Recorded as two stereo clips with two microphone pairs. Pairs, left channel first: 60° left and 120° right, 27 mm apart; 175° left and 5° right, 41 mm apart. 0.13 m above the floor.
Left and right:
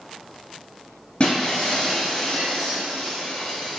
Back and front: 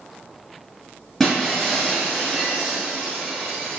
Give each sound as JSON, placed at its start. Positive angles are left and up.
{"t": 1.2, "sound": "breaking glass", "azimuth_deg": 95, "distance_m": 1.1}